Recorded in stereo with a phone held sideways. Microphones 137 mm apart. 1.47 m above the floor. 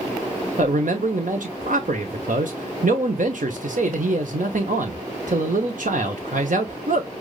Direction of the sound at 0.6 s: 70° right (ahead or behind).